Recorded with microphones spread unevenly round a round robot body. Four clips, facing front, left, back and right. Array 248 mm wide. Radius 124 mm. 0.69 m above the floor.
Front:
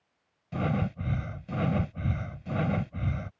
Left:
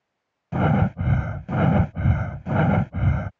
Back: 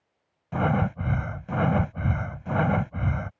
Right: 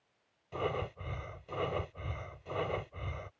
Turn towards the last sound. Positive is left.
turn(degrees=100)